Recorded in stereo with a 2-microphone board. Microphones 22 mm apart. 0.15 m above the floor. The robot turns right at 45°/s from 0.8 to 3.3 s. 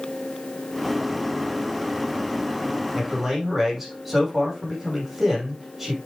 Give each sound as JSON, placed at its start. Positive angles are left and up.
{"t": 3.0, "sound": "a man speaking", "side_deg": -20, "distance_m": 5.5}